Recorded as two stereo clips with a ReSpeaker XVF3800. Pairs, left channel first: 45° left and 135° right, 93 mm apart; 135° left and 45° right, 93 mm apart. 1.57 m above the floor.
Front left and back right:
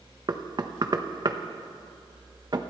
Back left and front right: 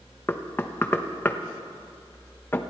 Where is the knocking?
160° right, 1.0 m.